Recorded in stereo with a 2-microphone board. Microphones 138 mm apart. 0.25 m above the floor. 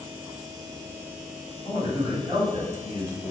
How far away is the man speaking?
About 1.7 m.